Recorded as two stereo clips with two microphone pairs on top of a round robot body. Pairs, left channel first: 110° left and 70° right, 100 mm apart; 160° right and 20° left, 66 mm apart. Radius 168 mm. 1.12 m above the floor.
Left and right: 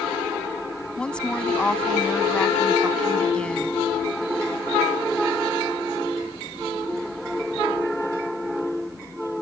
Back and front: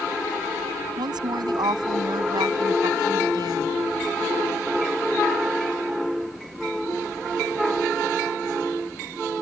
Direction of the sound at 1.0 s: 30° left.